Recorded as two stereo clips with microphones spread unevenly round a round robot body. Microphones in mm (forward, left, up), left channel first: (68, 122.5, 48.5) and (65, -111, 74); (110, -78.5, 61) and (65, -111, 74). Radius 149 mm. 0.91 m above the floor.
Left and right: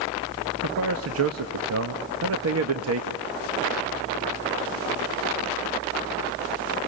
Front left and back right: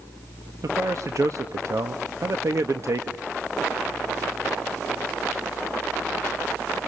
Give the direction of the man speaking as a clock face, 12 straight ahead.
4 o'clock.